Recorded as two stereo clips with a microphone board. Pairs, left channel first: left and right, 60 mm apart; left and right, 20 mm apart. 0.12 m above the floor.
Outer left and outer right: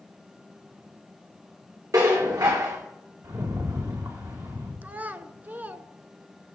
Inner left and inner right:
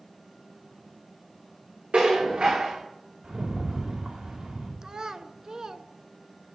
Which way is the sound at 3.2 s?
80° right.